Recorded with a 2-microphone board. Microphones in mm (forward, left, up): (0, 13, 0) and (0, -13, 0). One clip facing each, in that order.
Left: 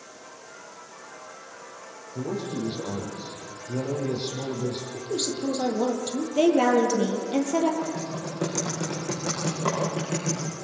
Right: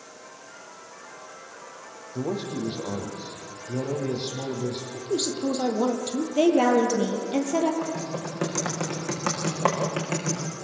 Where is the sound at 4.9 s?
30° right (ahead or behind), 3.5 m.